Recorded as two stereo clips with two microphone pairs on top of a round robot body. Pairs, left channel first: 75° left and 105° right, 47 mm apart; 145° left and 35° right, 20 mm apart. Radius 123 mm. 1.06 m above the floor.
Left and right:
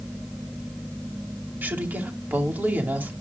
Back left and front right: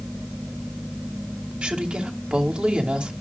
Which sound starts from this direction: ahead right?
A woman speaking, at 1.6 s.